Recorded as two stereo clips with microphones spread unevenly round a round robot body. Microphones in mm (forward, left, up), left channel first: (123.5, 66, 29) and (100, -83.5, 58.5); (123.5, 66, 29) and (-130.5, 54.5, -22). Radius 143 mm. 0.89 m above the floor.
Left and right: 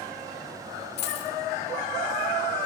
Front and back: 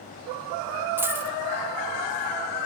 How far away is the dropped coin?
About 0.8 m.